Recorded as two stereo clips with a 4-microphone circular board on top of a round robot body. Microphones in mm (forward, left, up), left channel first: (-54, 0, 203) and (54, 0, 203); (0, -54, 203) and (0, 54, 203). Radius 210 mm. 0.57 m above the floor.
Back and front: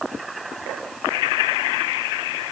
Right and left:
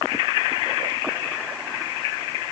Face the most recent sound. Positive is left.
No sound to turn to.